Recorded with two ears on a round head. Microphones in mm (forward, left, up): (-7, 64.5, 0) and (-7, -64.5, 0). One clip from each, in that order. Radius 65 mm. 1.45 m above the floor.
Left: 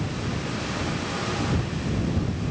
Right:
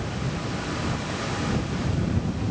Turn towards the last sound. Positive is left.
No sound to turn to.